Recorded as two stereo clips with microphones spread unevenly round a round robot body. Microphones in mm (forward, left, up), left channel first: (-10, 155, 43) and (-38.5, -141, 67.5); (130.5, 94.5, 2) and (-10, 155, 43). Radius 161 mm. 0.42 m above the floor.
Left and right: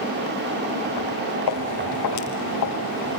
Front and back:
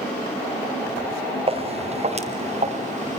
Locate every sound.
1.5 s footsteps: 110° left, 5.5 m; by 3.2 s 120° left, 6 m